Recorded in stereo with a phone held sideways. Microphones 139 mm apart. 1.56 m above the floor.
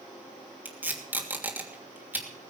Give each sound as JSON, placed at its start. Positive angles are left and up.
{"t": 0.7, "sound": "tape being pulled", "side_deg": -15, "distance_m": 3.0}